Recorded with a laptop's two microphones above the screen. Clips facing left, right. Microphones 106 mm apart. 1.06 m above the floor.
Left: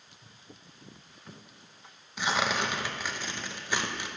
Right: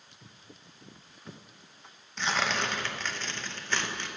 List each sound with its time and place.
0.2 s footsteps: 40° right (ahead or behind), 1.3 m; by 2.5 s 5° right (ahead or behind), 1.6 m
2.2 s tearing paper: 10° left (ahead or behind), 0.7 m